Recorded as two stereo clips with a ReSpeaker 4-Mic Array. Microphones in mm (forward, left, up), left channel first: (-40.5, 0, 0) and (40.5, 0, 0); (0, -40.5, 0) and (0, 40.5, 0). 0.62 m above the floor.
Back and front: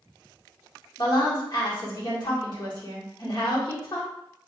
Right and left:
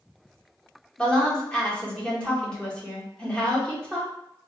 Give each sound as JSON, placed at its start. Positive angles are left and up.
{"t": 1.0, "sound": "a woman speaking", "azimuth_deg": -165, "distance_m": 1.4}